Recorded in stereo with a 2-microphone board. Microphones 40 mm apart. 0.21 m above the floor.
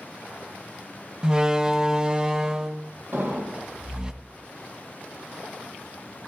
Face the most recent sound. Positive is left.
turn(degrees=-50)  # may be behind; listen again after turning